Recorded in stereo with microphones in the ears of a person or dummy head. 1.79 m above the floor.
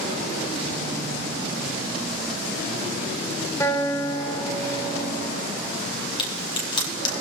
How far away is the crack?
About 5.5 m.